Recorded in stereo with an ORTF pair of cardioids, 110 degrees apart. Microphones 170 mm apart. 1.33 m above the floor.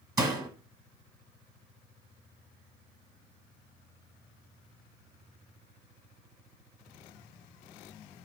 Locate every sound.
0.2 s a door slam: 20° right, 1.4 m